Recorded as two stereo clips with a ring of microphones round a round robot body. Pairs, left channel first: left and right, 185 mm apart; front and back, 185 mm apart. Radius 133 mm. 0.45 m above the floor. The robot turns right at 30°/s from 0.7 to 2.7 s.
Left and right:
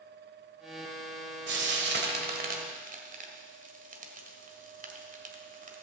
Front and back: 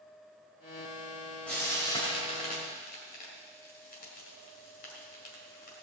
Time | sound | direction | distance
1.5 | frying | 85° right | 1.6 m